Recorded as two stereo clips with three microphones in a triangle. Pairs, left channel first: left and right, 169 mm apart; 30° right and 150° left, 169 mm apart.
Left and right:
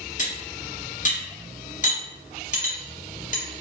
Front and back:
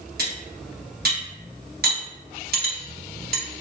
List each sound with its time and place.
0.2 s cutlery clinking: 130° left, 0.9 m